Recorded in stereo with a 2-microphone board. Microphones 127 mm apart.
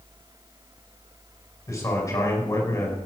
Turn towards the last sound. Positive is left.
turn(degrees=25)  # may be behind; listen again after turning